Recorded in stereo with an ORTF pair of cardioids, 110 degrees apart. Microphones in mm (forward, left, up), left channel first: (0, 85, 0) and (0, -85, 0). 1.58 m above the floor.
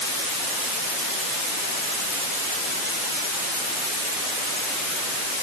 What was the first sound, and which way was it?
Only background noise.